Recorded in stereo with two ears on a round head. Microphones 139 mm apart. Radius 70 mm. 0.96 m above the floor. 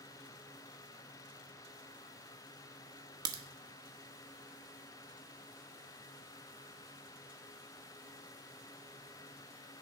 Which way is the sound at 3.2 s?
25° right (ahead or behind).